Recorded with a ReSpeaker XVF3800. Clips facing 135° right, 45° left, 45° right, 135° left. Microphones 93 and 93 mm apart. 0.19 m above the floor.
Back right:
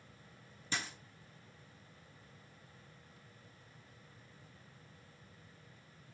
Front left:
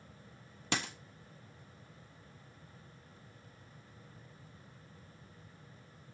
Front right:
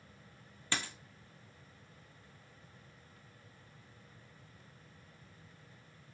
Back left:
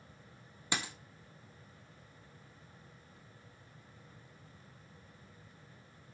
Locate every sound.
0.7 s a dropped coin: 60° left, 0.6 m